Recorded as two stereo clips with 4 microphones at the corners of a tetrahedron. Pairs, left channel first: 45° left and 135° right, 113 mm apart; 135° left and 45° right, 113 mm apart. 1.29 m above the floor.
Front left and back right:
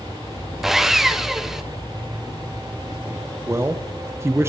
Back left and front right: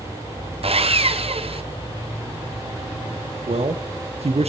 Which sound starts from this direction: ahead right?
Sawing, at 0.6 s.